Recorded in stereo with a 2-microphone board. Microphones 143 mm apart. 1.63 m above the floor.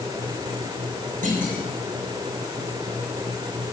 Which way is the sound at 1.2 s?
70° right (ahead or behind).